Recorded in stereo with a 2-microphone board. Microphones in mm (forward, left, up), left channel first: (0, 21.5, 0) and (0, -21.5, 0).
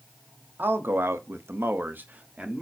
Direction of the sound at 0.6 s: 55° right (ahead or behind).